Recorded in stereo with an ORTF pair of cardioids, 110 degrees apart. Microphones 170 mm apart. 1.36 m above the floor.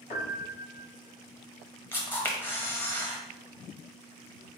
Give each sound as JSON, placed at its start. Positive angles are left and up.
{"t": 0.1, "sound": "a piano", "azimuth_deg": 50, "distance_m": 1.7}
{"t": 1.9, "sound": "a camera shutter", "azimuth_deg": 10, "distance_m": 1.2}